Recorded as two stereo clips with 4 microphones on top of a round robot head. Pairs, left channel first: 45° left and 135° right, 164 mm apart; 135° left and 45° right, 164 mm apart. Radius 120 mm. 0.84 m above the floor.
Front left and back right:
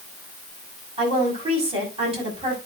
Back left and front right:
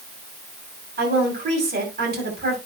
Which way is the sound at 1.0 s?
75° right.